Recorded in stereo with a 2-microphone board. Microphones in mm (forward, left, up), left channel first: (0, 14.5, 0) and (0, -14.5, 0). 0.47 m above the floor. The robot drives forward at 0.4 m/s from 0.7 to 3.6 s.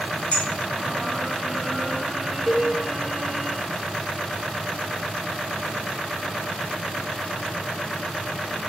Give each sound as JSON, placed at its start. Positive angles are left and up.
{"t": 0.3, "sound": "a clink", "side_deg": 45, "distance_m": 1.1}
{"t": 2.5, "sound": "a cowbell", "side_deg": 10, "distance_m": 0.6}